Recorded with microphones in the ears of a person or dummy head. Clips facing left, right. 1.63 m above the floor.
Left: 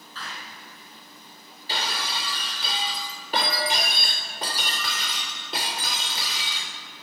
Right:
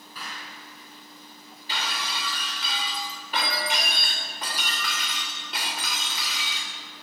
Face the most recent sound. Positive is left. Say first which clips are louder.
# left 2 dB
turn(degrees=30)  # may be behind; listen again after turning